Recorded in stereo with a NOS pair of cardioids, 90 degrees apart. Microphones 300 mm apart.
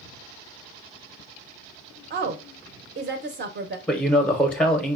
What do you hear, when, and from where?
2.1 s a woman speaking: 35° right, 0.5 m
3.9 s a man speaking: 5° left, 0.5 m